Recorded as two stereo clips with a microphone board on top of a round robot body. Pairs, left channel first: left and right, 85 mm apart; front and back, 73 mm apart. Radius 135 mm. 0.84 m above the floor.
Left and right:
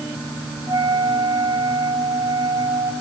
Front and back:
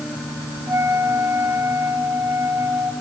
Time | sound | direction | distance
0.7 | a flute | 125° right | 3 m